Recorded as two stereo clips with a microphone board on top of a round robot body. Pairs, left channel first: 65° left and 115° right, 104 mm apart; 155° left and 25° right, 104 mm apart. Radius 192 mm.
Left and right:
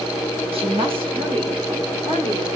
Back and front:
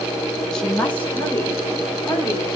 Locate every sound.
0.5 s a woman speaking: 120° right, 1.7 m; by 2.5 s 145° right, 3 m